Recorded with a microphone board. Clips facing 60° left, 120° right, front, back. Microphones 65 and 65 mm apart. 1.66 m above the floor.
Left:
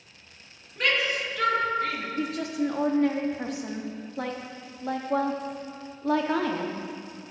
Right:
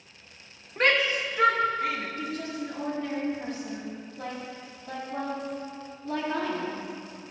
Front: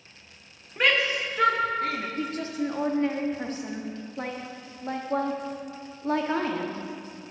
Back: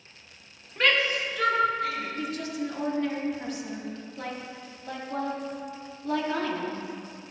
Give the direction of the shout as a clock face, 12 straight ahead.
3 o'clock.